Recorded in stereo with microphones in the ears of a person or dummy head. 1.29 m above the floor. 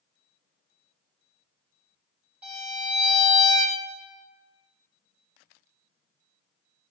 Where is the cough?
I don't hear a cough.